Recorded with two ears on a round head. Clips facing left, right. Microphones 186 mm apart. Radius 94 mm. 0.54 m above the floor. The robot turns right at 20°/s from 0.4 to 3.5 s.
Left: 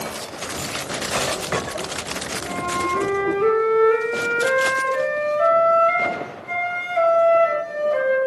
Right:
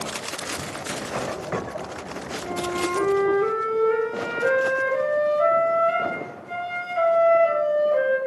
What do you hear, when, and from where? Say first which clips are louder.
2.4 s a flute: right 1 dB; 35° left (ahead or behind), 7 m; by 8.2 s 60° left (ahead or behind), 7 m